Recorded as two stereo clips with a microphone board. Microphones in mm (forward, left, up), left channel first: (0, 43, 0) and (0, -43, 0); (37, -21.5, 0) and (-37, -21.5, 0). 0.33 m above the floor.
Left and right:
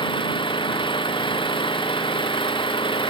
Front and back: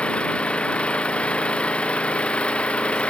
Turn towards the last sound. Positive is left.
turn(degrees=75)